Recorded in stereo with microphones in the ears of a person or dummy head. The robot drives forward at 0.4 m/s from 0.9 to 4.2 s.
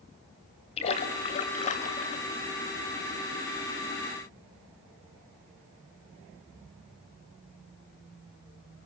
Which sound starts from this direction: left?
A splash, at 0.8 s.